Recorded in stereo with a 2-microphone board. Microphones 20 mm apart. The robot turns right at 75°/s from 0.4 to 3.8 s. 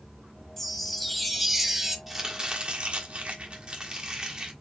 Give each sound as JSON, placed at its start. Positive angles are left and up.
{"t": 0.6, "sound": "a chime", "side_deg": 15, "distance_m": 0.8}
{"t": 2.1, "sound": "chopping", "azimuth_deg": -170, "distance_m": 1.4}